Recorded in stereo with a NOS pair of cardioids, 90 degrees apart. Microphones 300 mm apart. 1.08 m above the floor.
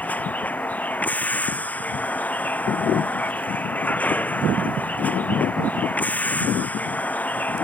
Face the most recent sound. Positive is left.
turn(degrees=5)